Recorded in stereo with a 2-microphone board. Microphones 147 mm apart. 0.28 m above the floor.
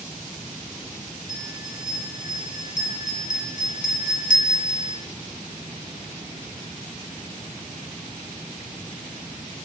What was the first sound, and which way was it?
A bell, 70° left (ahead or behind).